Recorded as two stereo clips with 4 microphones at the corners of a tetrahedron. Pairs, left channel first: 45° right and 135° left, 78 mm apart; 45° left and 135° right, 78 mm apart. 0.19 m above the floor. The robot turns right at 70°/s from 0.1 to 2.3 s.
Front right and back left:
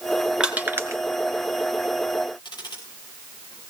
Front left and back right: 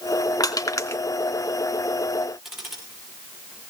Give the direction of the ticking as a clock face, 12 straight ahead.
2 o'clock.